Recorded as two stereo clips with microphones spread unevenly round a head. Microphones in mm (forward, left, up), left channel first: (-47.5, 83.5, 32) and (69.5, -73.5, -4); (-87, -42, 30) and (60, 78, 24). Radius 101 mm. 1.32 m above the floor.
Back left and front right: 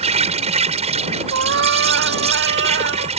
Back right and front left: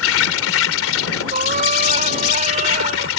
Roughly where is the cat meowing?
Ahead.